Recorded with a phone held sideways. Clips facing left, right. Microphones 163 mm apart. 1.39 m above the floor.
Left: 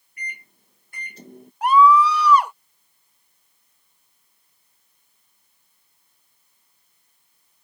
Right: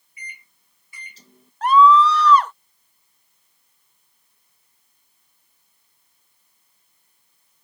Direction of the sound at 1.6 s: 10° left (ahead or behind).